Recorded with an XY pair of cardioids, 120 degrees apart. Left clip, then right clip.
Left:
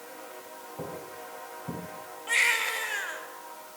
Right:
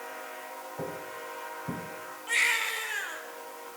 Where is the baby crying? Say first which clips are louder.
Left 2 dB; 10° left, 4.5 m.